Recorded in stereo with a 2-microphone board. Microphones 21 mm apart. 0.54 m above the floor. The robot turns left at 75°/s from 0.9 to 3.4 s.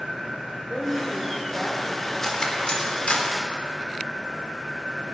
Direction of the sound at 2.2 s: 15° left (ahead or behind).